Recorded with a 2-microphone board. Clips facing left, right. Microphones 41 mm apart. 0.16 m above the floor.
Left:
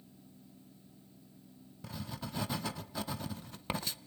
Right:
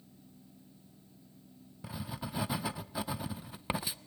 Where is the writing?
15° right (ahead or behind), 0.8 m.